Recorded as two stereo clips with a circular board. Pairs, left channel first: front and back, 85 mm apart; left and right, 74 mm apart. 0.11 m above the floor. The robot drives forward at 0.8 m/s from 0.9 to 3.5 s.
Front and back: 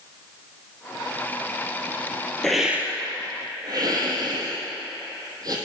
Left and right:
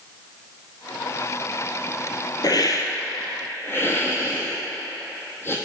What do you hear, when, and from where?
2.4 s a hiss: 85° left, 0.7 m; by 5.6 s 145° left, 1.0 m